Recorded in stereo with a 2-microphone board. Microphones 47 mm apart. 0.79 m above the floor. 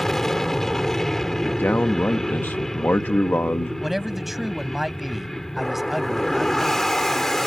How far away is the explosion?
No explosion in this recording.